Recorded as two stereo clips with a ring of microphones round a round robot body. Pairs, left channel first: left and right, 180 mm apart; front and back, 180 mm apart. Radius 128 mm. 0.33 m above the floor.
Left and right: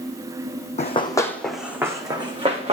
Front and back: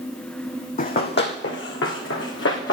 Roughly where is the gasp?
I don't hear a gasp.